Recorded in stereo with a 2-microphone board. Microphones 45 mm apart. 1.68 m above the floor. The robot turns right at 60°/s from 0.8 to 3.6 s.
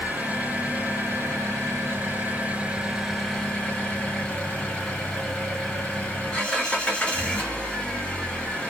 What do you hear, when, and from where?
0.0 s an engine running: 140° right, 1.7 m; by 8.7 s 25° left, 1.7 m